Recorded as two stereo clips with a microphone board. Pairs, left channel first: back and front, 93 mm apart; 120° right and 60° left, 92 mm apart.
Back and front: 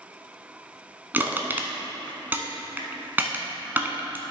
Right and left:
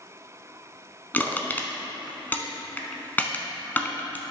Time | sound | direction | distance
1.1 | crushing | 60° right | 0.8 m